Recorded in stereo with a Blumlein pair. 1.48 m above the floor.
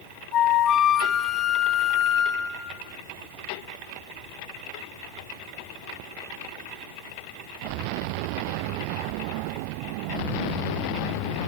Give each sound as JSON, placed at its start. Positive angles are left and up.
{"t": 0.3, "sound": "a flute", "azimuth_deg": 30, "distance_m": 2.5}